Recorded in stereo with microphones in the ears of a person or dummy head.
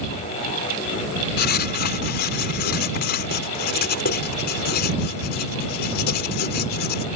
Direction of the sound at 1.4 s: 55° left (ahead or behind).